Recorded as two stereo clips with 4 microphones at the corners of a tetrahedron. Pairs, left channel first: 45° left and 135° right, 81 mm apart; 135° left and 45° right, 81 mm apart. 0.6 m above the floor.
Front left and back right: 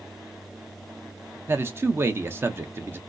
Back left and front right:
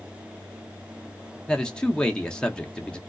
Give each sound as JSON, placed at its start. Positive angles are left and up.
{"t": 1.5, "sound": "a man speaking", "azimuth_deg": -155, "distance_m": 0.6}